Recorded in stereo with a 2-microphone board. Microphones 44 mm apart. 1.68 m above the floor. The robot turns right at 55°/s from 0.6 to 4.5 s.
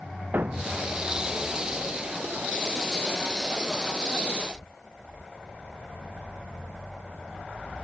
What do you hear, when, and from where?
0.3 s a thud: 50° right (ahead or behind); by 0.9 s 65° right (ahead or behind)